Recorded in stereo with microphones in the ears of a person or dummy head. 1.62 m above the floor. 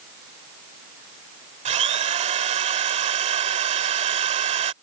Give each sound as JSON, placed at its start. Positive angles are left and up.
{"t": 1.6, "sound": "a drill", "side_deg": -35}